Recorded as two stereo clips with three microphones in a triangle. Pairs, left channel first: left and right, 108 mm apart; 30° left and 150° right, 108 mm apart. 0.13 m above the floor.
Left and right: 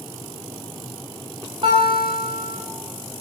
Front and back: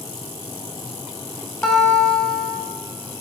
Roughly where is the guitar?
Ahead right.